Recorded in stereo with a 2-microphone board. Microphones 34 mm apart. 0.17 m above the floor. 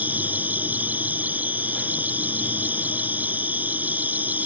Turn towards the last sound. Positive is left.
turn(degrees=-55)  # may be behind; listen again after turning